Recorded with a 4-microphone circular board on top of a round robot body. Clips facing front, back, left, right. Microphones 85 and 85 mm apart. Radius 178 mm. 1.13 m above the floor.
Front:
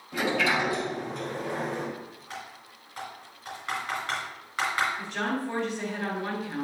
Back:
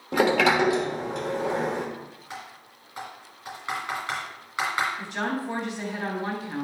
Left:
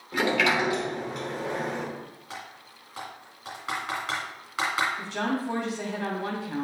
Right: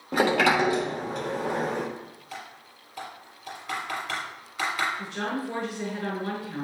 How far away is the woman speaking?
About 2.5 m.